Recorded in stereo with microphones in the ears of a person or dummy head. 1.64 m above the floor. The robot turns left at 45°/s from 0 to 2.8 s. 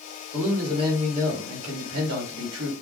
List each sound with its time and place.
0.3 s a man speaking: 5° right, 2.0 m; by 2.7 s 110° right, 2.0 m